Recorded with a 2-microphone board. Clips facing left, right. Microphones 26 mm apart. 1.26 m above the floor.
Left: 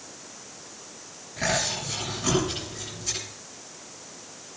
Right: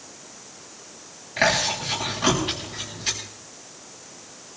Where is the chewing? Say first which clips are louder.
Right 6 dB; 50° right (ahead or behind), 10 m.